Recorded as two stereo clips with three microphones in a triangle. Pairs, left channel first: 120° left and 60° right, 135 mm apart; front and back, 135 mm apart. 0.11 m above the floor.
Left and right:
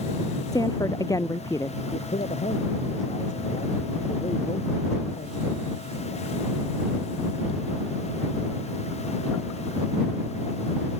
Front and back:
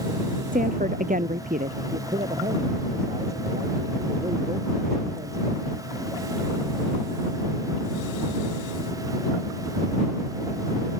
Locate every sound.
0.5 s a woman speaking: 175° right; by 1.8 s 170° right
1.9 s a man speaking: 145° left